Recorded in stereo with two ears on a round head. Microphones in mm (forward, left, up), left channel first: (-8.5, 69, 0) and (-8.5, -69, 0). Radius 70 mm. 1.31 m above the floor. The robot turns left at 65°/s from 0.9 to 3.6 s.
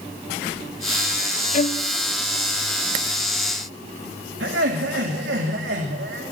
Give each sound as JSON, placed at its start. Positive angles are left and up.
{"t": 1.5, "sound": "a violin", "side_deg": 50, "distance_m": 0.7}
{"t": 4.4, "sound": "laughter", "side_deg": -90, "distance_m": 2.5}